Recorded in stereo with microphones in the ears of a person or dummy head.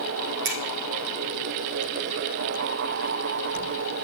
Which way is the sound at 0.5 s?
50° right (ahead or behind).